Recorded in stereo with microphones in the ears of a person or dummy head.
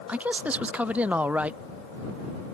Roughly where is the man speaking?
Centre.